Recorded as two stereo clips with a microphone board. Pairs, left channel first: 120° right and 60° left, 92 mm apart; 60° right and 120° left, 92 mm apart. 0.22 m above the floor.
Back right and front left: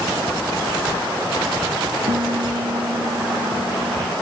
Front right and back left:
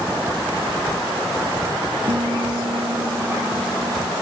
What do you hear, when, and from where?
2.1 s a guitar: 75° left